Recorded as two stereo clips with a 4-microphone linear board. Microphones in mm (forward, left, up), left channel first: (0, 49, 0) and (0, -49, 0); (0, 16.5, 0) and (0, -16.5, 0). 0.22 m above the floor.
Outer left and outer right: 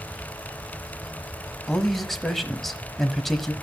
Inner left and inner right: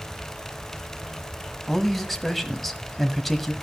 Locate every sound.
1.7 s a man speaking: centre (ahead or behind), 1.1 m